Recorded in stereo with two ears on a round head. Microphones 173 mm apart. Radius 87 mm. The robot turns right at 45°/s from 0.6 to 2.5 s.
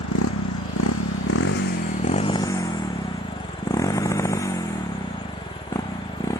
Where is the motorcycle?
75° left (ahead or behind); by 6.4 s 15° left (ahead or behind).